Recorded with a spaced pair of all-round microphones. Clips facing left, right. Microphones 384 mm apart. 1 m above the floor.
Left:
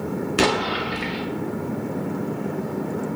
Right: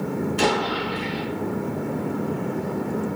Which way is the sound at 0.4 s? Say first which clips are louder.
Left 3 dB; 80° left.